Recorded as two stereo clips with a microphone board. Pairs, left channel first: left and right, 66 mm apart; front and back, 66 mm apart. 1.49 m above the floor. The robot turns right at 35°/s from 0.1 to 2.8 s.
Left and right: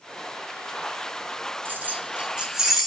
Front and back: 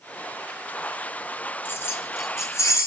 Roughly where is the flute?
I don't hear a flute.